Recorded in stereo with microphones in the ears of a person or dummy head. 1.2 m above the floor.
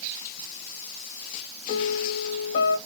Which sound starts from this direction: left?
A piano, at 1.7 s.